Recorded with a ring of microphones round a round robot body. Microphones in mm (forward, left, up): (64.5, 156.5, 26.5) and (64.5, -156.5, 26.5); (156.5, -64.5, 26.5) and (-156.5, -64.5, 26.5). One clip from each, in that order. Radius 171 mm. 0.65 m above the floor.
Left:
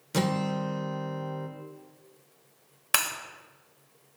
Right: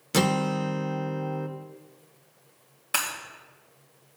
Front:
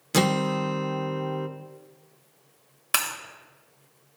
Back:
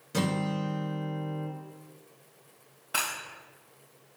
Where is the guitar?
25° right, 0.8 m.